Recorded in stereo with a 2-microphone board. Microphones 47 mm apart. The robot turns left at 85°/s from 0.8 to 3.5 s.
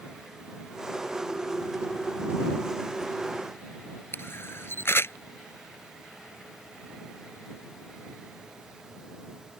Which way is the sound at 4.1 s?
60° left (ahead or behind).